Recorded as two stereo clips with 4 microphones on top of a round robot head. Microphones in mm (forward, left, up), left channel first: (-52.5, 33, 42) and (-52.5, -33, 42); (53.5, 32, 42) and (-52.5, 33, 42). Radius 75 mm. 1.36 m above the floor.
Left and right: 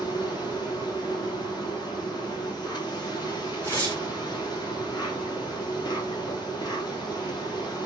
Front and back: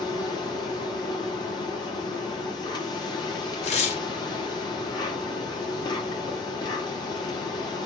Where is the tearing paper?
15° left, 2 m.